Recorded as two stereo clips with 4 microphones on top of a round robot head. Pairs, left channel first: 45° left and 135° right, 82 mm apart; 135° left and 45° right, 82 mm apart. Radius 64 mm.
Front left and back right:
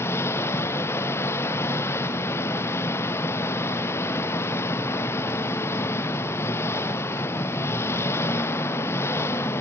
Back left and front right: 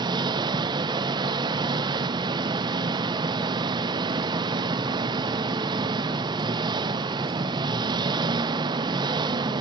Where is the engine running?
15° right, 0.7 m.